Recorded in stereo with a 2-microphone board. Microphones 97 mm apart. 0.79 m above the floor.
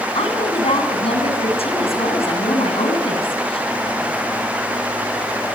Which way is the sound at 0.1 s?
85° left.